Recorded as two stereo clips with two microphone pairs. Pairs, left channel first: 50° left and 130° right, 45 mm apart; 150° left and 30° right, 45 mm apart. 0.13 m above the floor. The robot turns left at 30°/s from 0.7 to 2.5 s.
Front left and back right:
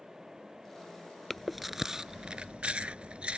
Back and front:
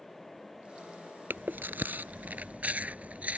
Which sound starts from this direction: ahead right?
Chewing, at 1.3 s.